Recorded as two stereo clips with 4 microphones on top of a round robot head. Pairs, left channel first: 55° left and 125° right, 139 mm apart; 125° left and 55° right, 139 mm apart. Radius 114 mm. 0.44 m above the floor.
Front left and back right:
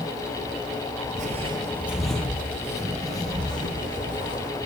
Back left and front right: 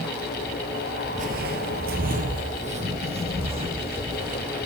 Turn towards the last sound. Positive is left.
turn(degrees=0)